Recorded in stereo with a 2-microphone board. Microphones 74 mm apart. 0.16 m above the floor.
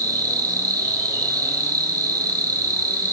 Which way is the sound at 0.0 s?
55° right (ahead or behind).